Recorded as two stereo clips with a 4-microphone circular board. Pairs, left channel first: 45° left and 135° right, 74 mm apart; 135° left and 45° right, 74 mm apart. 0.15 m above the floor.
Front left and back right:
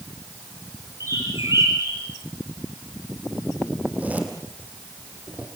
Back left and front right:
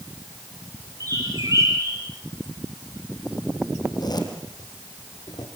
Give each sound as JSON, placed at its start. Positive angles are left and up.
{"t": 1.0, "sound": "a bird", "azimuth_deg": -90, "distance_m": 4.5}
{"t": 3.8, "sound": "a zipper", "azimuth_deg": 155, "distance_m": 3.5}